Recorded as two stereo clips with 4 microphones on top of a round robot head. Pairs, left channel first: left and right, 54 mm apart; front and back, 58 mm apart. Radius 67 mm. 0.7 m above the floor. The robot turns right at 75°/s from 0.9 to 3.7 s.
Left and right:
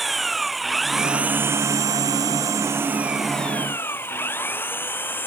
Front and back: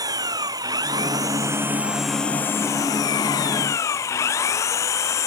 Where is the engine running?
Straight behind; by 5.3 s 30° left.